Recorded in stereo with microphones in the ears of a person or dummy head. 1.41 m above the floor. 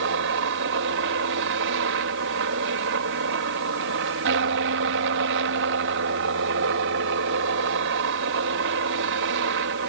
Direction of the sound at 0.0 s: 65° right (ahead or behind).